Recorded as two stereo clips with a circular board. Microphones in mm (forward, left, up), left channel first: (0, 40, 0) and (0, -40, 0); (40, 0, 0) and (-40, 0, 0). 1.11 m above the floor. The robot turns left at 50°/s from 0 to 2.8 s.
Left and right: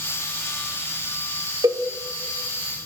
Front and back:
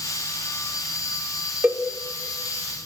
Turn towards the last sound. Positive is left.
turn(degrees=-165)